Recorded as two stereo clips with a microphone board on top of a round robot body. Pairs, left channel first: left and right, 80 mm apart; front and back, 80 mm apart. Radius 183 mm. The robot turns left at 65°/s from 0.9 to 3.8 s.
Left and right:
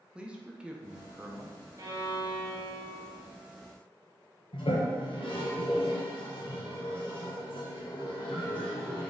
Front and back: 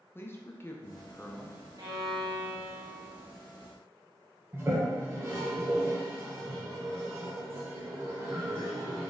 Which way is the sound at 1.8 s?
135° right.